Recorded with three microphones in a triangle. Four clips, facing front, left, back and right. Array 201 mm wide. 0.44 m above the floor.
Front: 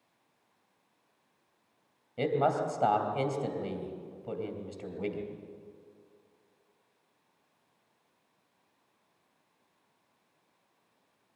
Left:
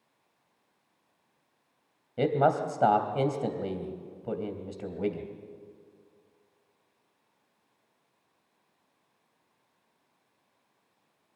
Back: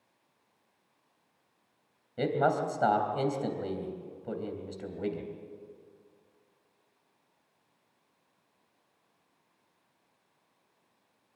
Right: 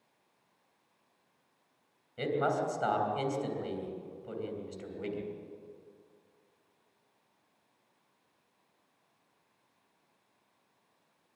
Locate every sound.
2.2 s a man speaking: 100° left, 3 m